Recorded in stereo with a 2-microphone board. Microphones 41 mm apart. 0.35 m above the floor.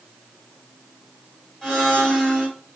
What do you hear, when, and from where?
1.6 s a blender: 10° left (ahead or behind), 1.7 m